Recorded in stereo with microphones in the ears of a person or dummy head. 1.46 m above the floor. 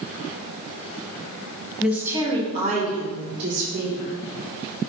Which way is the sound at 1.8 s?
5° right (ahead or behind).